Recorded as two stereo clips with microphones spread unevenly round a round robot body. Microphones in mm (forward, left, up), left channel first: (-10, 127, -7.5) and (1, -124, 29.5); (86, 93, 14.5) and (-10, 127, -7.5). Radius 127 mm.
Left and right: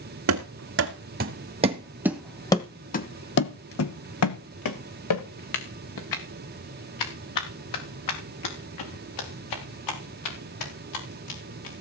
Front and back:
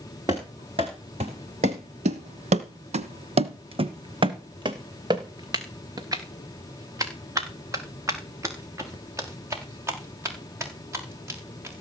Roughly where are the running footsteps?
Behind right.